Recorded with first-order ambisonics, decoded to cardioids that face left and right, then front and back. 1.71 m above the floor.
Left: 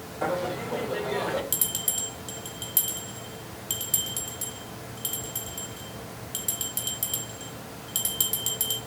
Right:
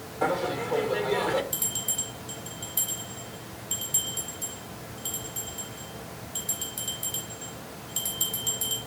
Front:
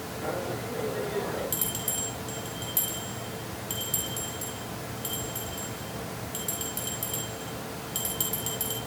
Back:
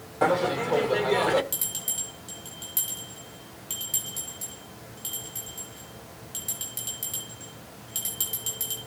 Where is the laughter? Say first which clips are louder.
Right 2 dB, back 10 dB; 175° right, 1.1 m.